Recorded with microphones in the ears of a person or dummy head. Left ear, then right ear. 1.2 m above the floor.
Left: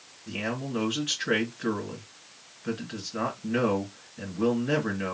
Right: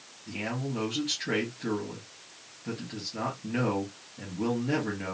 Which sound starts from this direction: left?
A man speaking, at 0.3 s.